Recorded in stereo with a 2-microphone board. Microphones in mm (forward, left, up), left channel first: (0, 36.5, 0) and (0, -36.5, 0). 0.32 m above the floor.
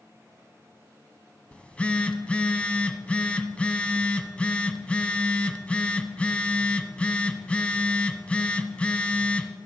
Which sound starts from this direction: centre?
A phone buzzing, at 1.5 s.